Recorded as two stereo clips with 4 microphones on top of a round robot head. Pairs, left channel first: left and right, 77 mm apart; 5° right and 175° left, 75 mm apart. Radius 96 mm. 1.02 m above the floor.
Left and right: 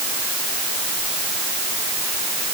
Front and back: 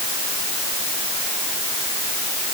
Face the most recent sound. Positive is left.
No sound to turn to.